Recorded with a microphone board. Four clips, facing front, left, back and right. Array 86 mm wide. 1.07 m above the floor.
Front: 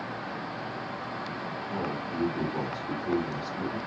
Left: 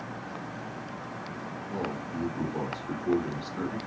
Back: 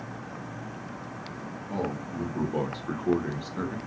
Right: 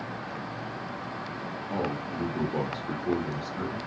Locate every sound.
1.7 s a man speaking: 120° right, 1.1 m; by 3.8 s 165° left, 0.9 m